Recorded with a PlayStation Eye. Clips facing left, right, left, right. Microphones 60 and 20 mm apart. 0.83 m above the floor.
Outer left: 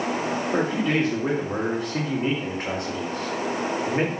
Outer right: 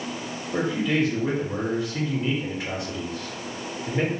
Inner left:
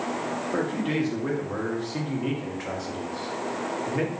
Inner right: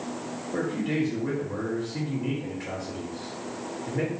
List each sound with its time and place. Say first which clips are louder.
0.5 s a man speaking: outer right 1 dB, even; 50° left (ahead or behind), 1.3 m